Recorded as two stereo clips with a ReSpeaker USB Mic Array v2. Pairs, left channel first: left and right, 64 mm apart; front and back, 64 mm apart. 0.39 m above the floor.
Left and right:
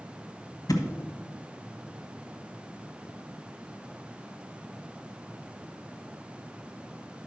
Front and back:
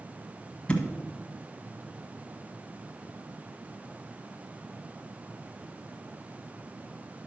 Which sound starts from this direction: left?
A thud, at 0.7 s.